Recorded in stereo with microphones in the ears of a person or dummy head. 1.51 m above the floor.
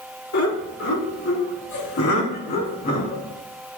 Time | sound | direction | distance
0.3 | laughter | 85° left | 4 m